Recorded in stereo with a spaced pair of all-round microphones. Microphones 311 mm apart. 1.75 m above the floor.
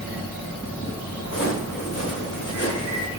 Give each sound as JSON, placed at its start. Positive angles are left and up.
{"t": 1.2, "sound": "footsteps", "side_deg": 50, "distance_m": 7.0}